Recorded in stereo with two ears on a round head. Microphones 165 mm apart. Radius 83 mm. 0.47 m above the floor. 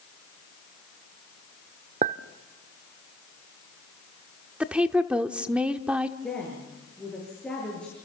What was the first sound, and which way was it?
A clink, 40° right (ahead or behind).